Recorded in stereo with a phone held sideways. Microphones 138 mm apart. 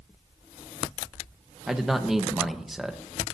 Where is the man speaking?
5° right (ahead or behind), 1.2 m.